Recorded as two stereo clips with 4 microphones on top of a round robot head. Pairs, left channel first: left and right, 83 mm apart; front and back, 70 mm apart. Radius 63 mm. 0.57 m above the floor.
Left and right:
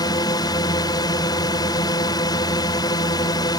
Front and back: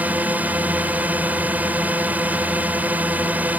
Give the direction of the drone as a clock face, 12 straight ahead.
8 o'clock.